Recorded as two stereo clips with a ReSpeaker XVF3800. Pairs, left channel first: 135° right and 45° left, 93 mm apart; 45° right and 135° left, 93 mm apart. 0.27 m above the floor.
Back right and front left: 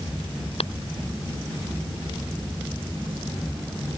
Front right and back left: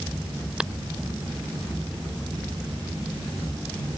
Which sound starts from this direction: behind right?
Tapping, at 0.6 s.